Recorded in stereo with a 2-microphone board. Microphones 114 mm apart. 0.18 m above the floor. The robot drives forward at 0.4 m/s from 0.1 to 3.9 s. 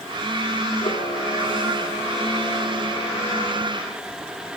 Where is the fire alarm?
No fire alarm in this recording.